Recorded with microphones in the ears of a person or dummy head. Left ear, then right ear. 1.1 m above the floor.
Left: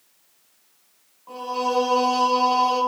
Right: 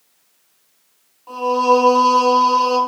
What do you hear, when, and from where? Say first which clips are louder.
1.3 s singing: right 10 dB; 65° right (ahead or behind), 4 m